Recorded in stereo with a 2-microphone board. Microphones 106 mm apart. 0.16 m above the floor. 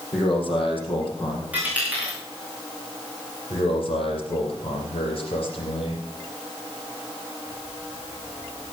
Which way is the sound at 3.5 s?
60° left (ahead or behind).